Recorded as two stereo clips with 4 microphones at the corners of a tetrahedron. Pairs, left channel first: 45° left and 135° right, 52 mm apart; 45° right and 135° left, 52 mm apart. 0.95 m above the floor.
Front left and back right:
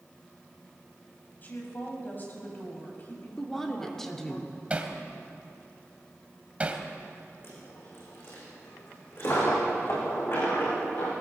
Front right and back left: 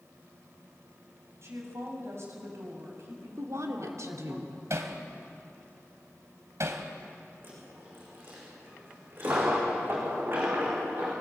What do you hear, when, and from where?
1.4 s a woman speaking: 100° left, 6.5 m
3.4 s a woman speaking: 130° left, 3 m
4.7 s hammering: 160° left, 2 m
7.4 s a dropped coin: 90° left, 8 m